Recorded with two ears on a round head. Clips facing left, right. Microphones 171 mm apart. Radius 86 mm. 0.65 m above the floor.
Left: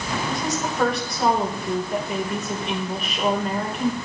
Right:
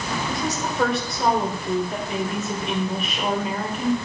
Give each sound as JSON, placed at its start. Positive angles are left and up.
{"t": 0.3, "sound": "a woman speaking", "side_deg": 0, "distance_m": 3.0}